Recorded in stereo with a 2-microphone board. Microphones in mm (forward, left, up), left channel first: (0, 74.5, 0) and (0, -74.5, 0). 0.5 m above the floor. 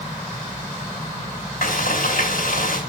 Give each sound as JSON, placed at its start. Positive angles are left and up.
{"t": 1.6, "sound": "frying", "side_deg": 75, "distance_m": 4.5}